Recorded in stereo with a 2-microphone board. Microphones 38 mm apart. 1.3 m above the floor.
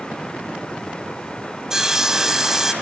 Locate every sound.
1.7 s sawing: 10° right (ahead or behind), 1.8 m